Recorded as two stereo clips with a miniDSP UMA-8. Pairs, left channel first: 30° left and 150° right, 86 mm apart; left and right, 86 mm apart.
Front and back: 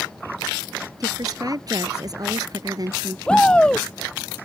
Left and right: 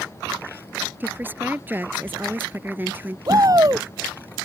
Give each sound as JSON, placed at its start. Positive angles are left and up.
{"t": 1.0, "sound": "a woman speaking", "azimuth_deg": -150}
{"t": 3.3, "sound": "a shout", "azimuth_deg": -45}